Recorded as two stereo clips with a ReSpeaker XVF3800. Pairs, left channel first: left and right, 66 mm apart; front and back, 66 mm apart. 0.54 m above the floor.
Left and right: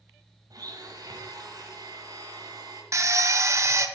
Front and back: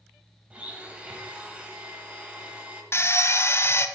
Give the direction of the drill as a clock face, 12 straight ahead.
2 o'clock.